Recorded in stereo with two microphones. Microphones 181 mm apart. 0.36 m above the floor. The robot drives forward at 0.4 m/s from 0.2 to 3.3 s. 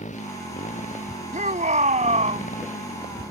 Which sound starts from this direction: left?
A motorcycle, at 0.0 s.